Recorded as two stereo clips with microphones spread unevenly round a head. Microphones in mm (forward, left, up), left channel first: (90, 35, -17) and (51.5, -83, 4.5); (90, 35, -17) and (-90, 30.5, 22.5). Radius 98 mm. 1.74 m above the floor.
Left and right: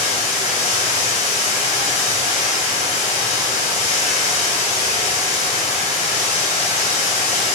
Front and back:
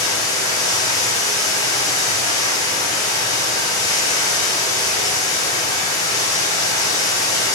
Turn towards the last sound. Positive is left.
turn(degrees=75)